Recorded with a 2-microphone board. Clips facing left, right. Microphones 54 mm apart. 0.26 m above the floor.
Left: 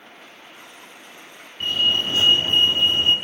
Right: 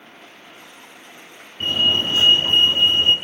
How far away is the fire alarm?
About 5.5 m.